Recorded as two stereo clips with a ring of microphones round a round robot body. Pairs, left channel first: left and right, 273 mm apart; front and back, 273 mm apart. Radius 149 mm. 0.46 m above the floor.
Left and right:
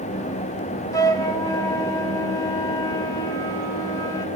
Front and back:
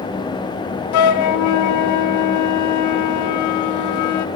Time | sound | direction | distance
0.9 | a flute | 10° left | 0.6 m